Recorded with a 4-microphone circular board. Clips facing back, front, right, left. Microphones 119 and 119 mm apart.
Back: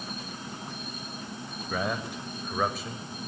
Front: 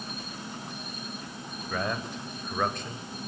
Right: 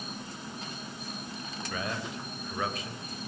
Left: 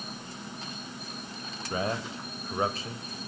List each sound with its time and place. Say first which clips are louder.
1.7 s a man speaking: back 1 dB, left 5 dB; 100° left, 1.0 m